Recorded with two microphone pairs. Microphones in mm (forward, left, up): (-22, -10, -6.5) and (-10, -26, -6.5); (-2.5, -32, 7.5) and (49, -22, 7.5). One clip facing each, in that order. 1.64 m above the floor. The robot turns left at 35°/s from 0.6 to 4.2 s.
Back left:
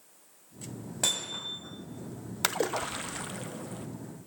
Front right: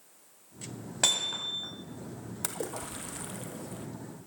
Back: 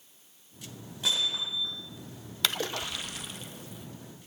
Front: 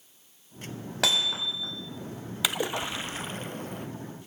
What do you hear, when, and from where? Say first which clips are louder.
1.0 s hammering: front right 3 dB, front 4 dB; 10° left, 8 m; by 1.7 s 15° right, 8 m
2.4 s a splash: back left 8 dB, front 2 dB; 90° left, 1.0 m; by 3.9 s 40° left, 1.0 m